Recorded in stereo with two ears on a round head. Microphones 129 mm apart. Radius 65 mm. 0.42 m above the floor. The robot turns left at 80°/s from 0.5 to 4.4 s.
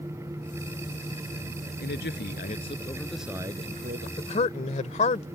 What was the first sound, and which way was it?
A man speaking, 110° left.